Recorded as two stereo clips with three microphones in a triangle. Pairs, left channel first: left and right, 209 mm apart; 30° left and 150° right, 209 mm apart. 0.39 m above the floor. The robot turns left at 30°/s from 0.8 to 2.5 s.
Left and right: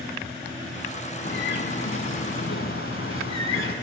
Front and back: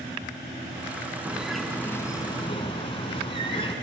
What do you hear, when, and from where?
1.2 s a bird: 130° left, 0.9 m; by 3.8 s 90° left, 0.9 m